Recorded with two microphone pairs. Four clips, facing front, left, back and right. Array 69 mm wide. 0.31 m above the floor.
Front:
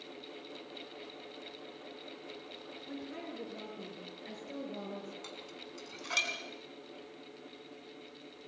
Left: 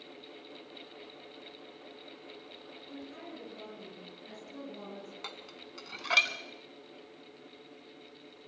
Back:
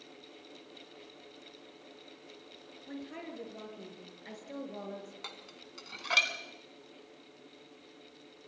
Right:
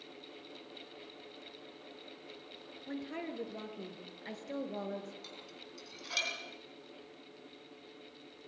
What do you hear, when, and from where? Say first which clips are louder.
2.9 s a woman speaking: right 6 dB, back 1 dB; 100° right, 5 m
5.2 s dishes clattering: left 4 dB, front 2 dB; 115° left, 2.0 m